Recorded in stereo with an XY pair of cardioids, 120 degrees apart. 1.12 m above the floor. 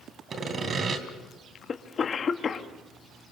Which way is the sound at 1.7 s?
35° left.